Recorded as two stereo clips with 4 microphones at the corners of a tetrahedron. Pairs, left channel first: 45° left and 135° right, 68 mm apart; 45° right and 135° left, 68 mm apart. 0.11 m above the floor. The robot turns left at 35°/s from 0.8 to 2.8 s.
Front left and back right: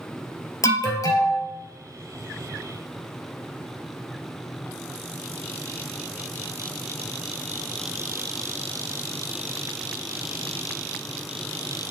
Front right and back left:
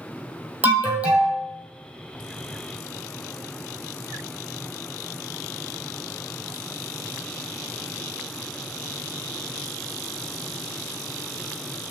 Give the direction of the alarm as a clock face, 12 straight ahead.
10 o'clock.